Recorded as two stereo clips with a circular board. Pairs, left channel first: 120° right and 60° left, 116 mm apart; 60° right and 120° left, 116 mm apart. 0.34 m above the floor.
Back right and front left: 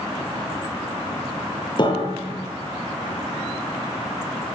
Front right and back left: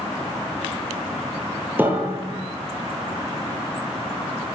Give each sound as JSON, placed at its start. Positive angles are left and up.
{"t": 1.8, "sound": "a piano", "azimuth_deg": -165, "distance_m": 8.5}